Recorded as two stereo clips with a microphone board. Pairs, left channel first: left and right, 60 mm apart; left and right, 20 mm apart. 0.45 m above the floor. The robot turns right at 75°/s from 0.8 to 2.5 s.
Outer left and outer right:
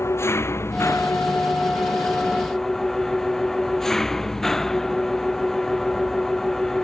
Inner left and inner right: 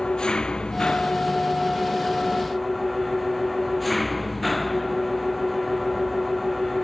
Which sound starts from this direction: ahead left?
An engine running, at 0.0 s.